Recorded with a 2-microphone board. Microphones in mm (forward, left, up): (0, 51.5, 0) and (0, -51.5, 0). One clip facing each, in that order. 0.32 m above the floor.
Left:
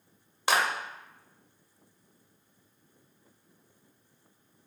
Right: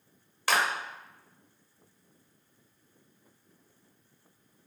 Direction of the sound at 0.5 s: 20° left (ahead or behind).